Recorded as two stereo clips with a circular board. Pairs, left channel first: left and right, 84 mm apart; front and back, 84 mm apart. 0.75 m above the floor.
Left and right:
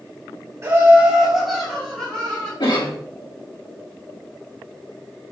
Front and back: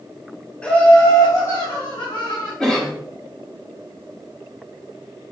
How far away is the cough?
About 2.5 m.